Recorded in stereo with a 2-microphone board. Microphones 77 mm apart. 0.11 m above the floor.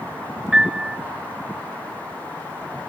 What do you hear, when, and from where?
0.5 s a piano: 10° right (ahead or behind), 0.6 m